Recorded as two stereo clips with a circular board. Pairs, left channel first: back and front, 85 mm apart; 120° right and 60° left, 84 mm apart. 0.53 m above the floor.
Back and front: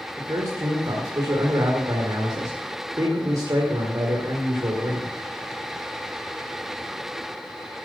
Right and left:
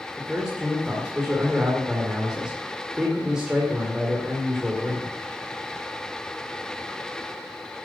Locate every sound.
0.2 s a man speaking: 20° right, 2.0 m